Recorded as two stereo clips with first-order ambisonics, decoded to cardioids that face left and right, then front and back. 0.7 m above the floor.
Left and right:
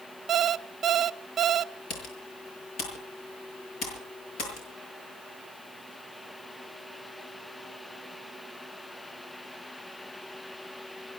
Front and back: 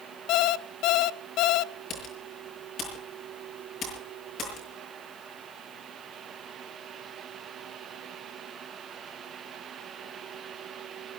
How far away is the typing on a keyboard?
About 7 m.